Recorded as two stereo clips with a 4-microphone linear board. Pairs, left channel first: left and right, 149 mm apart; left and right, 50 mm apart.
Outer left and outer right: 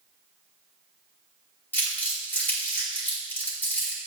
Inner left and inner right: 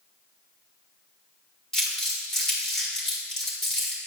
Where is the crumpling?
10° left (ahead or behind), 2 m.